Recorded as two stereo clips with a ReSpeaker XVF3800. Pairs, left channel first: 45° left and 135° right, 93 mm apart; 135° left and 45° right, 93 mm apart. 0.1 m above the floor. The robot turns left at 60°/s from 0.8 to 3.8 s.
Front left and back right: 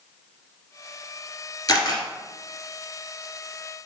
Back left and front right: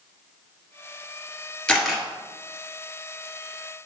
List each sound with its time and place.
1.7 s a camera shutter: 65° left, 2 m; by 2.0 s 45° left, 2 m